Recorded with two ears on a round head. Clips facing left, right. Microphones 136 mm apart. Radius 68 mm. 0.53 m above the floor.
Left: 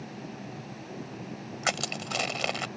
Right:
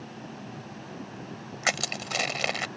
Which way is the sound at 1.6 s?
5° right (ahead or behind).